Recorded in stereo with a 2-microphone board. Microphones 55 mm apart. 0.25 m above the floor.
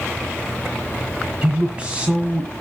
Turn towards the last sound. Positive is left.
turn(degrees=-25)  # may be behind; listen again after turning